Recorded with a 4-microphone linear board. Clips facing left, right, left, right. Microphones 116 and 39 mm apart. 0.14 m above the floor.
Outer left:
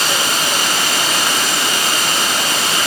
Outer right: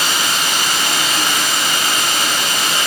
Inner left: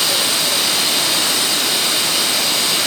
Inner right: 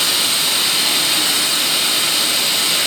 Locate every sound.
0.0 s running water: 60° right (ahead or behind), 4 m